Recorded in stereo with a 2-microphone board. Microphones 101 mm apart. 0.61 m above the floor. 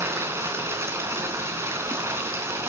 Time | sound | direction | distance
0.0 | running water | 25° right (ahead or behind) | 4 m